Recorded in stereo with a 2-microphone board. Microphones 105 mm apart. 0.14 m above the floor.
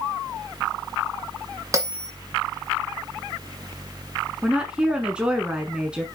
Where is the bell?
30° right (ahead or behind), 1.8 m.